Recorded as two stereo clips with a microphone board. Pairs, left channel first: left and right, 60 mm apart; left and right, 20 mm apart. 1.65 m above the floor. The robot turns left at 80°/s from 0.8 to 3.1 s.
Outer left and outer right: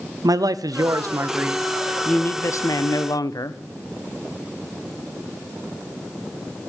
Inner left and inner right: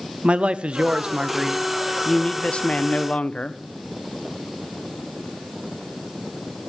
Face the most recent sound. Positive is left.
turn(degrees=75)